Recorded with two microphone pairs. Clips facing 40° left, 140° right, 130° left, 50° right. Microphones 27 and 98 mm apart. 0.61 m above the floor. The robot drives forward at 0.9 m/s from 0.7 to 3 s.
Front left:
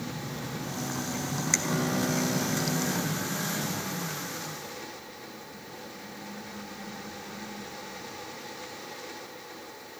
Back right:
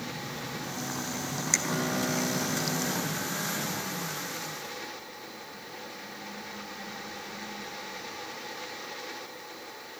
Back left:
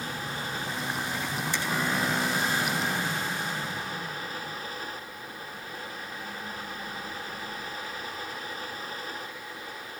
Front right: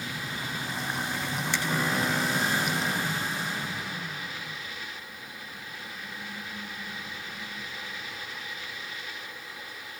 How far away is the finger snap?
About 1.9 m.